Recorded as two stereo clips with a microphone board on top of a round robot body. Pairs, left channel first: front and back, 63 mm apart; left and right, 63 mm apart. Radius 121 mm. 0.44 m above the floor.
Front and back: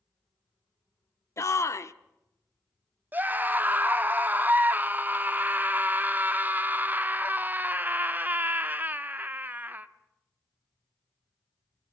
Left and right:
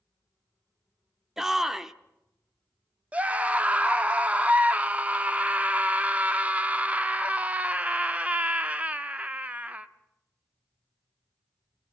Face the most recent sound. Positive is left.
turn(degrees=-145)